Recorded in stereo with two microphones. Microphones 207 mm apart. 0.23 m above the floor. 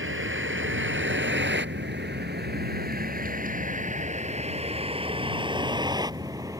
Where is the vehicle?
75° right (ahead or behind); by 6.6 s 15° right (ahead or behind).